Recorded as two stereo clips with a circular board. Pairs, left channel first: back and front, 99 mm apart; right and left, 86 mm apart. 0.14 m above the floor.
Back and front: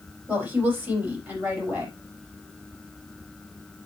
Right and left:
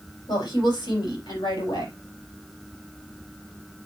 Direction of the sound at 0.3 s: 75° right.